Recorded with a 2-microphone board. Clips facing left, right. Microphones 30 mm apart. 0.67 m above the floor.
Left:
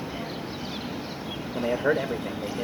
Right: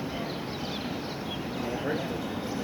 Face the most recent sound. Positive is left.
turn(degrees=40)  # may be behind; listen again after turning